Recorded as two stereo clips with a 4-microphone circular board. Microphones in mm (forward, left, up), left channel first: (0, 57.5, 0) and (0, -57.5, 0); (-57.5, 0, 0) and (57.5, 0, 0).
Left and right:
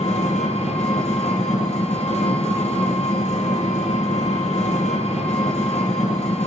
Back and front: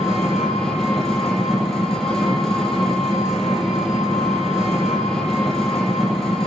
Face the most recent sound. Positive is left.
turn(degrees=90)